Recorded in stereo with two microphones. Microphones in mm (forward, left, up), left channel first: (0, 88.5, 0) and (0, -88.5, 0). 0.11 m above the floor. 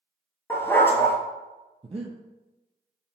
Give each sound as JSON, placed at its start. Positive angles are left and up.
{"t": 0.5, "sound": "a dog barking", "side_deg": 15, "distance_m": 0.5}
{"t": 1.8, "sound": "breathing", "side_deg": -35, "distance_m": 0.5}